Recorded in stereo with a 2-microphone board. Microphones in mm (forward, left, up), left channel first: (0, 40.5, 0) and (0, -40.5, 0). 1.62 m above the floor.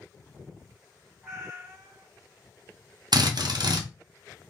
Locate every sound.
1.2 s a cat meowing: 25° right (ahead or behind), 2.0 m
3.1 s a drill: 65° right (ahead or behind), 0.8 m